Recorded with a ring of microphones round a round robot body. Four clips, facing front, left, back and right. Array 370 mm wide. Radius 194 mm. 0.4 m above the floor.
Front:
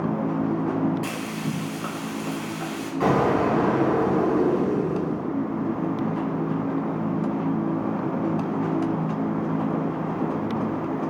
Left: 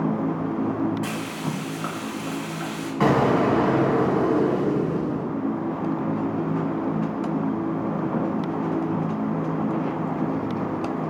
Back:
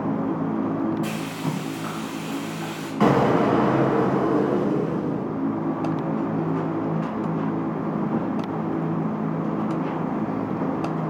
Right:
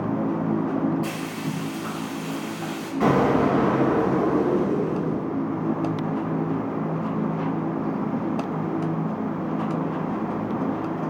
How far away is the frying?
About 1.1 m.